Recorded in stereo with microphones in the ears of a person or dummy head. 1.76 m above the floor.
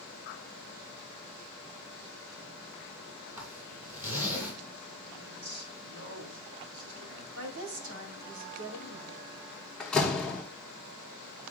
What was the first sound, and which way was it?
A zipper, 15° right (ahead or behind).